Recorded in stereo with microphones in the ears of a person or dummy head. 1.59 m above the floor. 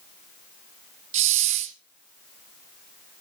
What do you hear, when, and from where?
1.1 s a hiss: 40° right (ahead or behind), 1.0 m